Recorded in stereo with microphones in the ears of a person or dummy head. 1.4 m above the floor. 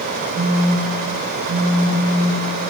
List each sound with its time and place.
0.3 s a phone buzzing: 50° right (ahead or behind), 0.7 m